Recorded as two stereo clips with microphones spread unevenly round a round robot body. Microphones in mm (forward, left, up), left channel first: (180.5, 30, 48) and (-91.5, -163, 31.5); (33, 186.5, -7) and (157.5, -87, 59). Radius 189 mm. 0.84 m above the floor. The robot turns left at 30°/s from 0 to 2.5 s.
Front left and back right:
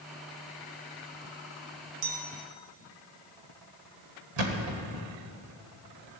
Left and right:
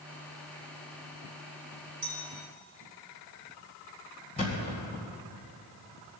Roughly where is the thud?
Behind.